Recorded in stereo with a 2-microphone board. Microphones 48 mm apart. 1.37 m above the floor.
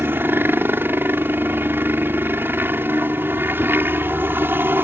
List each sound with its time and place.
0.0 s a helicopter: 45° right (ahead or behind)